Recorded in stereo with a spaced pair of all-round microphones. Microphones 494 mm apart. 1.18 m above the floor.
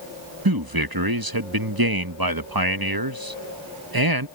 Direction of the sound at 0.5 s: 45° right (ahead or behind).